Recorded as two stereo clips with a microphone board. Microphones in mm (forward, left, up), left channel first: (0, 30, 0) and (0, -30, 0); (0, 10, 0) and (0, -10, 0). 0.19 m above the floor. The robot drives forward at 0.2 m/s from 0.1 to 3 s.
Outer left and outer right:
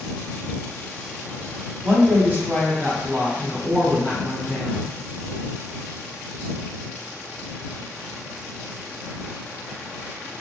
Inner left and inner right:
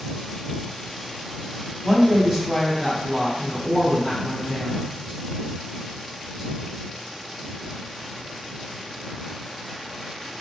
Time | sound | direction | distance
1.8 | a woman speaking | 30° right (ahead or behind) | 1.1 m